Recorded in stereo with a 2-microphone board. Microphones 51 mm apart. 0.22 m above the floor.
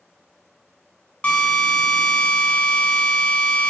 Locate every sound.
1.2 s a drill: 25° left (ahead or behind), 0.6 m